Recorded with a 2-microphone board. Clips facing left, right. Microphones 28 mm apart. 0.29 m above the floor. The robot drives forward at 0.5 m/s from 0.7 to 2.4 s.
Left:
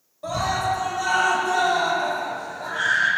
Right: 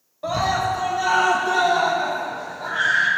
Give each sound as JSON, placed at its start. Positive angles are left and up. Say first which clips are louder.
{"t": 0.2, "sound": "a scream", "louder": "right 2 dB", "side_deg": -25, "distance_m": 1.0}